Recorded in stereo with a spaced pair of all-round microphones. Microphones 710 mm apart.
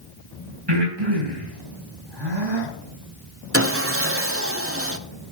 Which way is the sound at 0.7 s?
35° right (ahead or behind).